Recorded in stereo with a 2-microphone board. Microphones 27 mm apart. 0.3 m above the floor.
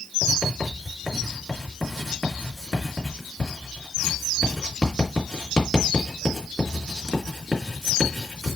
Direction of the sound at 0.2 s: 10° left (ahead or behind).